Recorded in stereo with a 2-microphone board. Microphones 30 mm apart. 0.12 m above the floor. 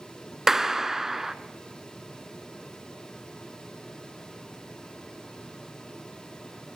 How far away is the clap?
About 0.9 m.